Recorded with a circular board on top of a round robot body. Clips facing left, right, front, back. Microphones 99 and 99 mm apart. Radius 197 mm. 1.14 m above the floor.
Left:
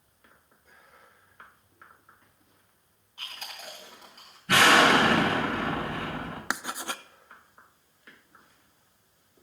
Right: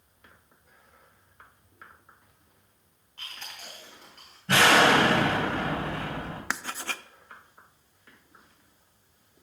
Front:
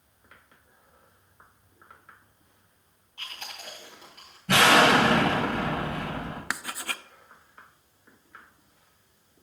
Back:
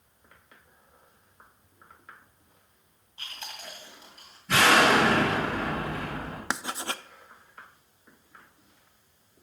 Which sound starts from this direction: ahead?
Chewing, at 3.2 s.